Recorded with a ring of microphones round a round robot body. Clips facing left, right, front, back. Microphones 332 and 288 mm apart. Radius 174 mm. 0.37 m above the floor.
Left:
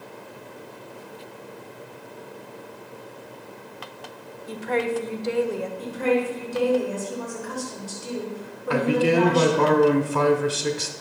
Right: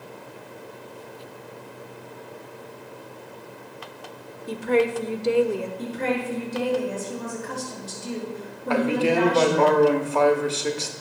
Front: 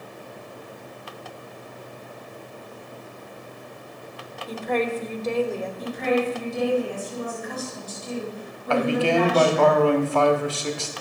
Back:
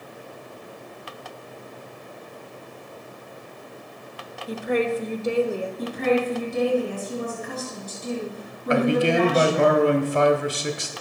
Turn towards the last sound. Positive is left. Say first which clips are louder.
# left 1 dB, back 1 dB
turn(degrees=130)